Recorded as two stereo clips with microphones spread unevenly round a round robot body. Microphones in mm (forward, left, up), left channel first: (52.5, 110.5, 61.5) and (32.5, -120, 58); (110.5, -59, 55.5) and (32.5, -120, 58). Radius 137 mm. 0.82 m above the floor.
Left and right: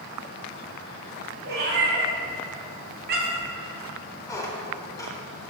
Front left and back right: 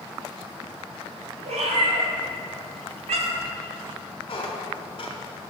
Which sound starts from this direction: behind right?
A cat meowing, at 1.4 s.